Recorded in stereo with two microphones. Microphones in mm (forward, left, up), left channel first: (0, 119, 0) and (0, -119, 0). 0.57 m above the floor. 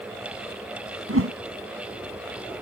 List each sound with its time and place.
1.1 s a whoosh: 70° right (ahead or behind)